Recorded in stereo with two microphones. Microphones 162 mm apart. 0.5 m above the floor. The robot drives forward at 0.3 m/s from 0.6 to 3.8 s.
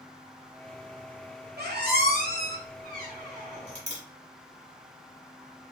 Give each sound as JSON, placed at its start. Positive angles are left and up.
{"t": 1.6, "sound": "a squeak", "side_deg": -80, "distance_m": 0.7}